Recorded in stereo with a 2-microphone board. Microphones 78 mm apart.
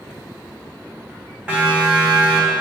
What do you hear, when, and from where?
1.5 s a siren: 15° right (ahead or behind), 6.5 m